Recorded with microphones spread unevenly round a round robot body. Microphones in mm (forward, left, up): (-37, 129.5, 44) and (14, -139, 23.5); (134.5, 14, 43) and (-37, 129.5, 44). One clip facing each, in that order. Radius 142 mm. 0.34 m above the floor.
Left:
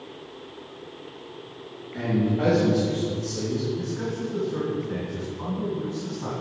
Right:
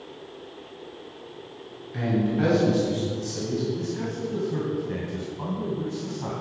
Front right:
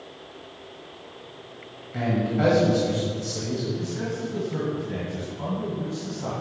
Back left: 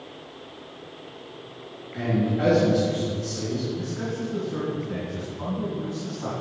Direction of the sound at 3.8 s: 105° right.